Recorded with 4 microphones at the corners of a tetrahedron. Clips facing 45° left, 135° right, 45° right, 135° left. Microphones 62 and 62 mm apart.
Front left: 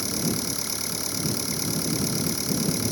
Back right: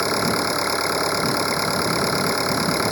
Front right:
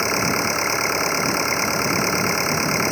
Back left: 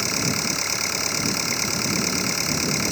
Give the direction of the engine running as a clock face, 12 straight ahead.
3 o'clock.